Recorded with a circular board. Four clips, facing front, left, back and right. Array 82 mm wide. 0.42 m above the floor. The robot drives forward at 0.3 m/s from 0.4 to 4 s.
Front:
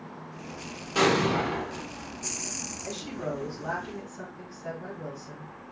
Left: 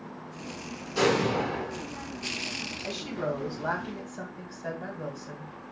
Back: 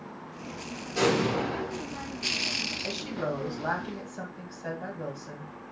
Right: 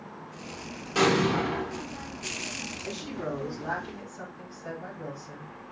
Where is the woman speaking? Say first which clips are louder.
Left 3 dB, back 1 dB; 130° left, 2.0 m; by 5.5 s 140° left, 2 m.